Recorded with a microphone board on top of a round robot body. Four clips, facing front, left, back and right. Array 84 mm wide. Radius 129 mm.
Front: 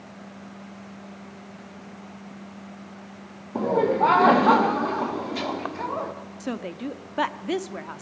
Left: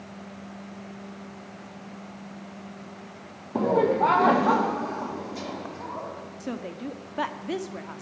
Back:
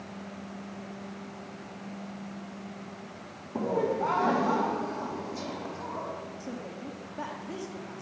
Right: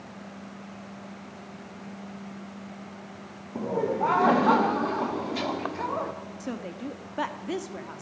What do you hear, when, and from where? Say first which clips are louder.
3.5 s laughter: left 6 dB, front 7 dB; 55° left, 0.9 m; by 6.1 s 35° right, 1.9 m
6.4 s a woman speaking: left 2 dB, front 7 dB; 5° left, 1.4 m